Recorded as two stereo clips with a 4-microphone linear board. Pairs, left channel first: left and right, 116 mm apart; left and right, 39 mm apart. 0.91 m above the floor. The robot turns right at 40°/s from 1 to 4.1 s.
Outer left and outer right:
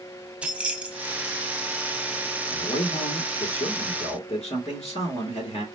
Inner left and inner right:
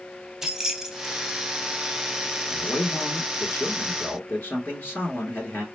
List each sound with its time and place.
0.4 s keys jangling: 10° right (ahead or behind), 0.6 m; by 1.4 s 25° right (ahead or behind), 0.6 m
2.5 s a man speaking: 50° left, 3 m; by 5.6 s 110° left, 3 m